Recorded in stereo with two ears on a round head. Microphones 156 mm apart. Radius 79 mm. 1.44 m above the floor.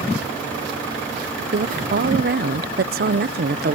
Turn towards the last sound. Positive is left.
turn(degrees=-55)  # may be behind; listen again after turning